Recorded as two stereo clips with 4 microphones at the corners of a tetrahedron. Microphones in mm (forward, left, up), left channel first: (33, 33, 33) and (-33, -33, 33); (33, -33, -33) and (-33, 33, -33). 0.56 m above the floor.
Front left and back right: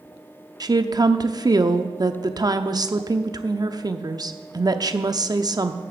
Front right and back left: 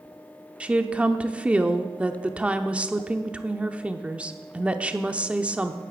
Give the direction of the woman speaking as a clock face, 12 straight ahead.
5 o'clock.